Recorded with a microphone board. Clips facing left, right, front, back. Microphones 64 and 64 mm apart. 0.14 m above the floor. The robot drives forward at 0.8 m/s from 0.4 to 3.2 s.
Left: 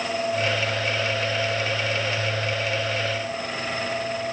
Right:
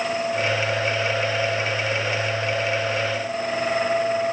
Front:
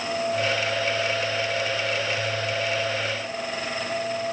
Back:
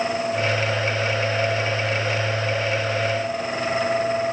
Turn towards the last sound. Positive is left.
No sound to turn to.